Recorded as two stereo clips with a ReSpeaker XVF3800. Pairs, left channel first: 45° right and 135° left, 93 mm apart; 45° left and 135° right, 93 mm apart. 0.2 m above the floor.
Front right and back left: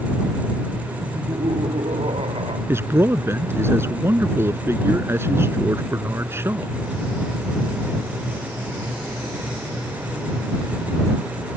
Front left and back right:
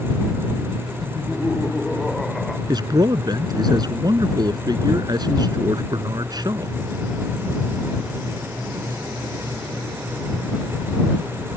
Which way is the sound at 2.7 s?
165° right.